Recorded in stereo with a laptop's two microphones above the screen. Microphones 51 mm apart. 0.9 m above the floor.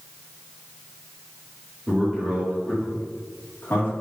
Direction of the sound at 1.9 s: 20° right (ahead or behind).